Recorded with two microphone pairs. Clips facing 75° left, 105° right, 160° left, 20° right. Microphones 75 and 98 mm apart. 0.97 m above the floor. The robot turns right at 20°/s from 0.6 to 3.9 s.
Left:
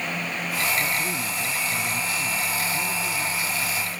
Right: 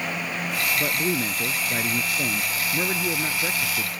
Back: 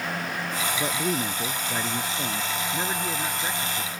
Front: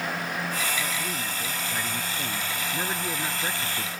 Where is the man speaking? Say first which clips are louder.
Right 2 dB, back 5 dB; 155° right; by 3.9 s 90° right.